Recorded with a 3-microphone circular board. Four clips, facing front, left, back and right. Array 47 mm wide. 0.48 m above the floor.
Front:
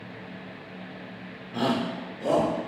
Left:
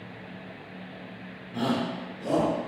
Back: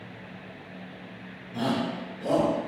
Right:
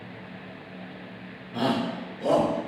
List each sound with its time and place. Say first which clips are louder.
1.5 s a shout: right 2 dB, front 1 dB; 20° right, 1.4 m; by 2.5 s 60° right, 2.0 m